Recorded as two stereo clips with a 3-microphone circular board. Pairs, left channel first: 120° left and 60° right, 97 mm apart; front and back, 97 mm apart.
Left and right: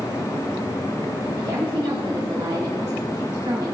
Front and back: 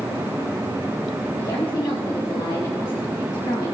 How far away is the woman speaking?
About 1.7 m.